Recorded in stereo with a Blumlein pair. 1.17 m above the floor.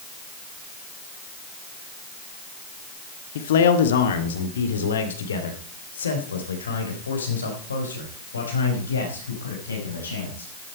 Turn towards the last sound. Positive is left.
turn(degrees=75)